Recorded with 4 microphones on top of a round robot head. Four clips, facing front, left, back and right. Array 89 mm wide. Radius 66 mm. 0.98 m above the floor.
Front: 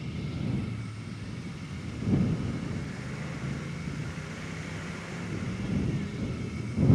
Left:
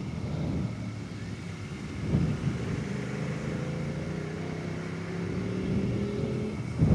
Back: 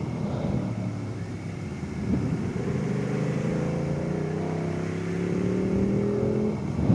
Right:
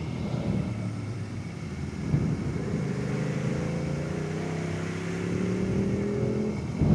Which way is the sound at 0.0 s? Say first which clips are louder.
Right 3 dB, back 6 dB; 165° right.